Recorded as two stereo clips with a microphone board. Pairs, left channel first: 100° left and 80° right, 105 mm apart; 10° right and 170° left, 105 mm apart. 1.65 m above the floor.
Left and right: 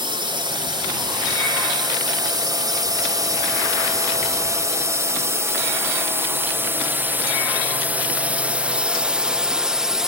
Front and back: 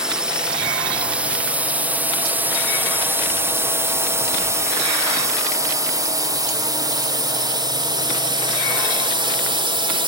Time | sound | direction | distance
0.0 | a drone | 105° right | ?